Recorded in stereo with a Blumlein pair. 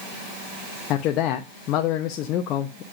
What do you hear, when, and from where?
0.9 s a man speaking: 35° left, 0.9 m